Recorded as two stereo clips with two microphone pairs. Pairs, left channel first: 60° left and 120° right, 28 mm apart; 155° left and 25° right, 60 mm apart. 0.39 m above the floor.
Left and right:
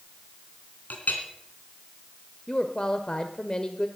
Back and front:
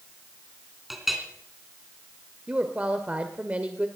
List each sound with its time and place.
0.9 s a clink: 60° left, 2.5 m
2.5 s a woman speaking: 20° left, 1.0 m